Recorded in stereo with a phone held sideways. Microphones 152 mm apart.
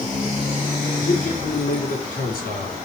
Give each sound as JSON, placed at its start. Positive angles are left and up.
{"t": 1.0, "sound": "a man speaking", "side_deg": 70, "distance_m": 3.5}